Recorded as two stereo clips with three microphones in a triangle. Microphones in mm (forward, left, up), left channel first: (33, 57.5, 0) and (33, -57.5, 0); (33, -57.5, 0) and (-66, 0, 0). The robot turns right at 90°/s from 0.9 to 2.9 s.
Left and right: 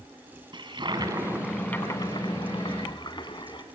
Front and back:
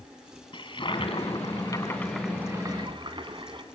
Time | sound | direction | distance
0.5 | a toilet flushing | 55° right | 2.5 m